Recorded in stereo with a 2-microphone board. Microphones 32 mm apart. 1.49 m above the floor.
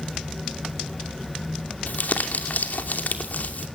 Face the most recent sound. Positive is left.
turn(degrees=65)  # may be behind; listen again after turning